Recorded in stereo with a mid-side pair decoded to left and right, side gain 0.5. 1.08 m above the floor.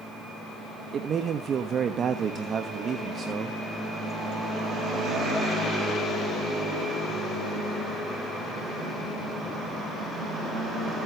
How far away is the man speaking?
About 1.3 m.